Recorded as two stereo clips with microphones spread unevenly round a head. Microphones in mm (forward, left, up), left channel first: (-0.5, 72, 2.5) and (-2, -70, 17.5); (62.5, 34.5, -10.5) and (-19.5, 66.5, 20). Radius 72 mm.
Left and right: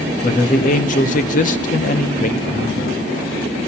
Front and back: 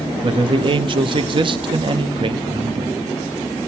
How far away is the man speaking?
About 1.2 m.